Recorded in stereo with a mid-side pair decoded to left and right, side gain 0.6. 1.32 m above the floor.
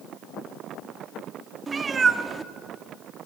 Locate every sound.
1.7 s a cat meowing: 30° right, 1.6 m